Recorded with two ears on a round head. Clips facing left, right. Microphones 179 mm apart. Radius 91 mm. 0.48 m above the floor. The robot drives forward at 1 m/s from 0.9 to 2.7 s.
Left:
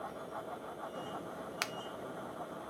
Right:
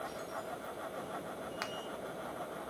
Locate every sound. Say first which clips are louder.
1.6 s a finger snap: right 1 dB; 35° left (ahead or behind), 0.6 m